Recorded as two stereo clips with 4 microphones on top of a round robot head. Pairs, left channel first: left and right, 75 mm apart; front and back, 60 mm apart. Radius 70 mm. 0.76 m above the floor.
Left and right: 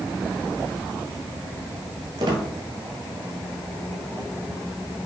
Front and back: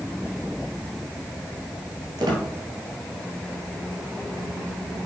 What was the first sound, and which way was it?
A squeak, 140° right.